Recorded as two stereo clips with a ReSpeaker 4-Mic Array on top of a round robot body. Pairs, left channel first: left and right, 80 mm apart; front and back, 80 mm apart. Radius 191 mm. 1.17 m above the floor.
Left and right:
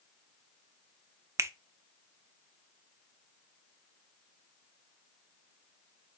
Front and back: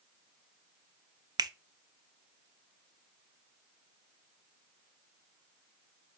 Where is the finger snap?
145° right, 0.5 m.